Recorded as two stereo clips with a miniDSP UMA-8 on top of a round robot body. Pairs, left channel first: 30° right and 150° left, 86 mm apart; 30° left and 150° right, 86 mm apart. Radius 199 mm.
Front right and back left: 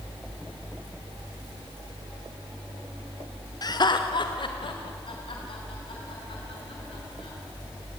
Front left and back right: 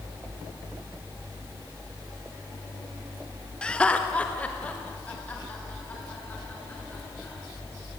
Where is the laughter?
45° right, 1.3 m.